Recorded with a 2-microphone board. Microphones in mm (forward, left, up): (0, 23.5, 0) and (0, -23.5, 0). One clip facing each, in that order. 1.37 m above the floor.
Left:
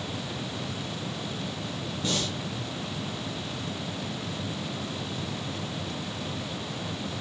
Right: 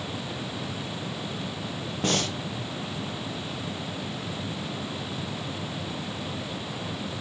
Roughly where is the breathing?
Right.